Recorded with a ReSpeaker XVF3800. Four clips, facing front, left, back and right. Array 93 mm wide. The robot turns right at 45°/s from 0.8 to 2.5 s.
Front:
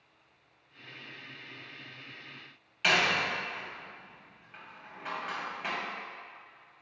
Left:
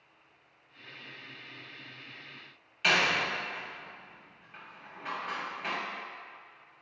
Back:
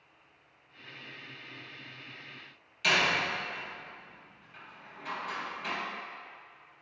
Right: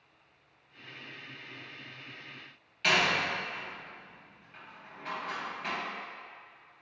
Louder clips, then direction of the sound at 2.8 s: Even, front 1 dB; 20° left.